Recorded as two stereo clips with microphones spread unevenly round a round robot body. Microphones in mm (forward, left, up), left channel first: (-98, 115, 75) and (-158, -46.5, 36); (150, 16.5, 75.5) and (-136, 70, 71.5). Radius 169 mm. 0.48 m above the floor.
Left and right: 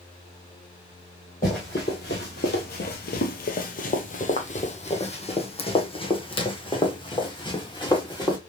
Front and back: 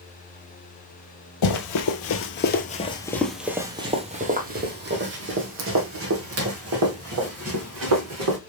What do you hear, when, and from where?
1.4 s running footsteps: 10° left, 1.1 m; by 8.4 s 135° left, 3 m